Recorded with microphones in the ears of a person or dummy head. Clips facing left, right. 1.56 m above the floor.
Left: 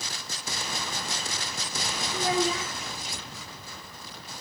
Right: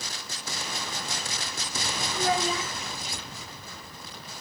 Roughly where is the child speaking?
Left.